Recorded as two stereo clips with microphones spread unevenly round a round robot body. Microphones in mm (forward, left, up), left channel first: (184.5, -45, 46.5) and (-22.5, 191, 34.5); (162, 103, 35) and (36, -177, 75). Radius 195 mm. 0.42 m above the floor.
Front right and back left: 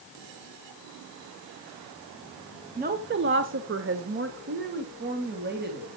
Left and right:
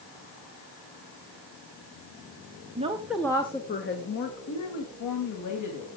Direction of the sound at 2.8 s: Straight behind.